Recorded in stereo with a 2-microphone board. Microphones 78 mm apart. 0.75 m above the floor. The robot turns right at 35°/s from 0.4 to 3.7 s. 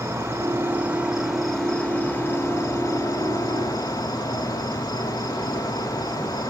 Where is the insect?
35° right, 1.5 m; by 6.5 s 80° left, 1.5 m.